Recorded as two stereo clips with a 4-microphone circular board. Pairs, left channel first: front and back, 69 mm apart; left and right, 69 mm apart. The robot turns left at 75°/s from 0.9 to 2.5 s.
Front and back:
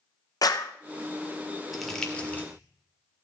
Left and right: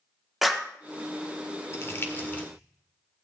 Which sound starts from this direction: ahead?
A clap, at 0.4 s.